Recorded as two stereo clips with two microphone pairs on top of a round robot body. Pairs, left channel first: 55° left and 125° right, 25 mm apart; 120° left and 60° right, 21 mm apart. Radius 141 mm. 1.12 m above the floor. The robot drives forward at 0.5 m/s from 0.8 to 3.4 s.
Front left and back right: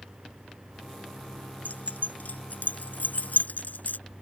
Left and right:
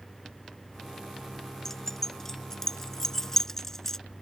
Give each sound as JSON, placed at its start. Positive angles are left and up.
{"t": 1.6, "sound": "keys jangling", "azimuth_deg": 50}